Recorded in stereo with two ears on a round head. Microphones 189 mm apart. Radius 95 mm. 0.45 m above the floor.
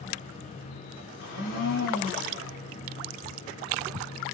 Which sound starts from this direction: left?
A blender, at 1.2 s.